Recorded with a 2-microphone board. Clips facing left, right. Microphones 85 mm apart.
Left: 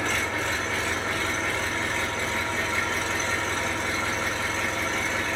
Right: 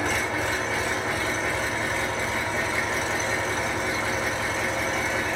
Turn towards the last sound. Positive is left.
turn(degrees=-10)  # may be behind; listen again after turning